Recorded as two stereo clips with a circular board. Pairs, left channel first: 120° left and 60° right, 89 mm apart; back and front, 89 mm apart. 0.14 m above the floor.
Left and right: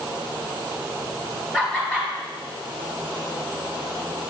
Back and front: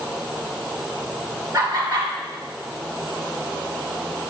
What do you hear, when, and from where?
1.5 s laughter: 50° left, 2 m